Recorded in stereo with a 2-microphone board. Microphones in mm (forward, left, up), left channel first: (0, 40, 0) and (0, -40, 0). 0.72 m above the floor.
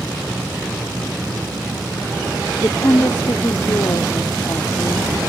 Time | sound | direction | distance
2.6 | a woman speaking | 45° left (ahead or behind) | ?